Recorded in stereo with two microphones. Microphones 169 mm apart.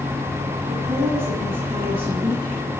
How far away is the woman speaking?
About 9 m.